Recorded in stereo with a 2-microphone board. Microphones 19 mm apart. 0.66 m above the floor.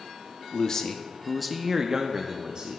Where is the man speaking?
35° left (ahead or behind), 0.8 m; by 2.8 s 45° right (ahead or behind), 0.9 m.